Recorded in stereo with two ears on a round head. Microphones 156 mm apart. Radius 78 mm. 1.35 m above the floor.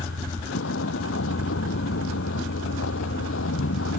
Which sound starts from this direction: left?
A vehicle, at 0.0 s.